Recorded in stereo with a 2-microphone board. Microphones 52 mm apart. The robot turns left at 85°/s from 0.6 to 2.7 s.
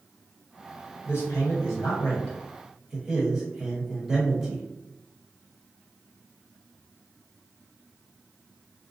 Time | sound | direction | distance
1.1 | a man speaking | 130° left | 1.1 m